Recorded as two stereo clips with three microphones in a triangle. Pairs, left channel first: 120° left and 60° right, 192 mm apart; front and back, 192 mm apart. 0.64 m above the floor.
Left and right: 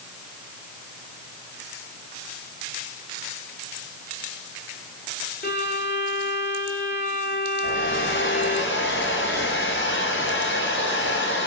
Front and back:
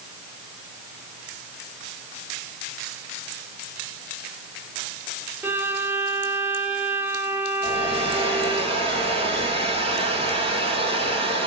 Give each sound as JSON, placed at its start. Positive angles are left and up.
{"t": 5.4, "sound": "a violin", "azimuth_deg": 100, "distance_m": 1.6}
{"t": 7.6, "sound": "a hair dryer", "azimuth_deg": 120, "distance_m": 3.0}